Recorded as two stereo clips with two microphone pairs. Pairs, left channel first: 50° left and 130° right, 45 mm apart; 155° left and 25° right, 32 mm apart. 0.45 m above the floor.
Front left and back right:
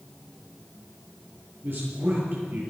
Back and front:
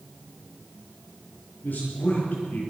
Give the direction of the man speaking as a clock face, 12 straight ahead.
6 o'clock.